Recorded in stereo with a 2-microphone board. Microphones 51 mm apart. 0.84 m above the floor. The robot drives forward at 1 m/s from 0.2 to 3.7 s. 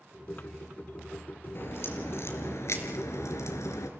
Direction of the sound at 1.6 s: 50° left (ahead or behind).